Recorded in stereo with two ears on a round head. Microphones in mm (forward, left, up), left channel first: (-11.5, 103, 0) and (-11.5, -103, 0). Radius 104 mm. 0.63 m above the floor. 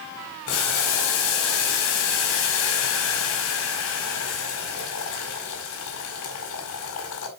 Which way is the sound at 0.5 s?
65° left (ahead or behind).